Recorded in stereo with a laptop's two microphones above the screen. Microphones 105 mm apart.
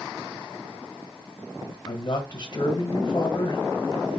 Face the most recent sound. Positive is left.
turn(degrees=50)  # may be behind; listen again after turning